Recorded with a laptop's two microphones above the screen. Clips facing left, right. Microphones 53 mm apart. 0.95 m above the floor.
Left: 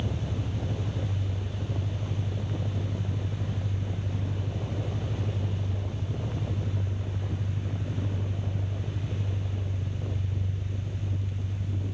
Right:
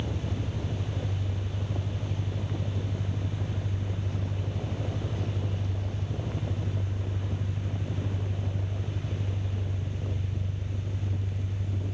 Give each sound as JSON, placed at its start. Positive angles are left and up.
{"t": 0.0, "sound": "an engine running", "side_deg": -55, "distance_m": 1.2}